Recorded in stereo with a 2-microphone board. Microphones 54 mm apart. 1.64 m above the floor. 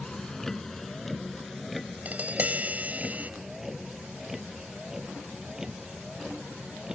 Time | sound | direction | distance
0.0 | a vehicle | 10° left (ahead or behind) | ?
2.0 | tapping | 30° right (ahead or behind) | ?